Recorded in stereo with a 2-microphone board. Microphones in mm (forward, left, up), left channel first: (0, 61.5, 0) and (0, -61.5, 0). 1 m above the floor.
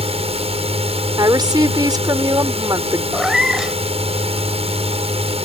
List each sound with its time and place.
0.0 s a drone: 55° right (ahead or behind)
1.2 s a woman speaking: 35° right (ahead or behind)
3.1 s a cat meowing: 5° right (ahead or behind)